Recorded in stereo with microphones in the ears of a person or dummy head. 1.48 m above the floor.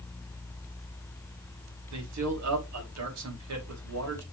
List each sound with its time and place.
1.9 s a man speaking: 85° right, 4 m